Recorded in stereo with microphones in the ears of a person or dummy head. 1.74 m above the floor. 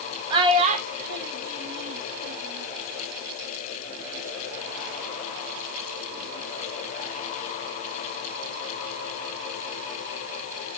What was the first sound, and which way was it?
A child speaking, 25° right (ahead or behind).